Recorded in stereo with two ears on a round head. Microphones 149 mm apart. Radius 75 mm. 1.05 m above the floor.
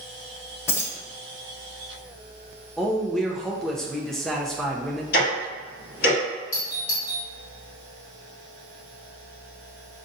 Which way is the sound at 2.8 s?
Centre (ahead or behind).